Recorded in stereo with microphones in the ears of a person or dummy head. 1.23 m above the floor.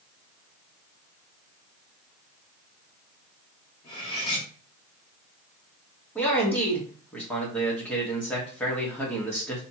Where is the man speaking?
5° left (ahead or behind), 1.3 m.